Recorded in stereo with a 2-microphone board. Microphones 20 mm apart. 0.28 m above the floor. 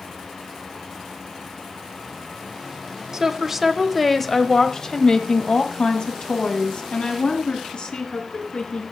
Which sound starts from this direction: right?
A woman speaking, at 3.1 s.